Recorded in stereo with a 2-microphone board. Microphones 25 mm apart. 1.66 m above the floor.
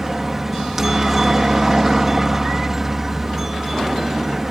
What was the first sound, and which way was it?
A helicopter, 10° right (ahead or behind).